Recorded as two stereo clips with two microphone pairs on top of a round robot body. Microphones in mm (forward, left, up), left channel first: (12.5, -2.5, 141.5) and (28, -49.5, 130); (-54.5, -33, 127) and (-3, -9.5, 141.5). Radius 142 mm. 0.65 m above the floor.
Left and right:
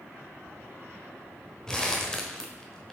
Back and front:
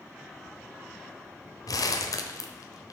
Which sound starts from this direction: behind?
Crumpling, at 1.7 s.